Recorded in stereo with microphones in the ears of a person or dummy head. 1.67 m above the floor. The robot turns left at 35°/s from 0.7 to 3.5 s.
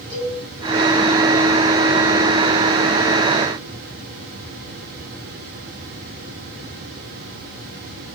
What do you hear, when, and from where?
0.1 s a cowbell: 35° right (ahead or behind), 3 m